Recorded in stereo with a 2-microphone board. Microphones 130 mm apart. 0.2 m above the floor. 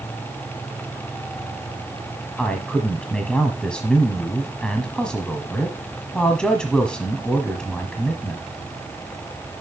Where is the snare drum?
I don't hear a snare drum.